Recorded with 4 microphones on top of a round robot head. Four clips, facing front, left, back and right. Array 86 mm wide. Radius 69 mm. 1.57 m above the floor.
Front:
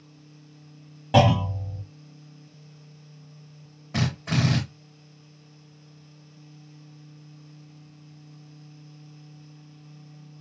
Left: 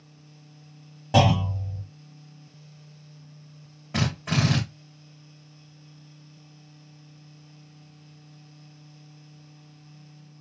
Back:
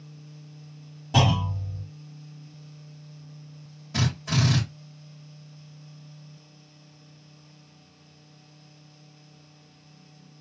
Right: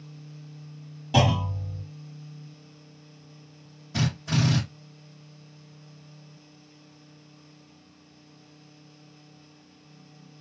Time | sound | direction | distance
1.1 | a clunk | 30° left | 2.5 m
3.9 | a drill | 55° left | 2 m